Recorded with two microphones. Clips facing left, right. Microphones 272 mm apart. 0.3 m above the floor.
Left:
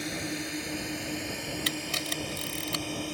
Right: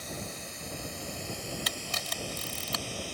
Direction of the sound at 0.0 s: 75° left (ahead or behind).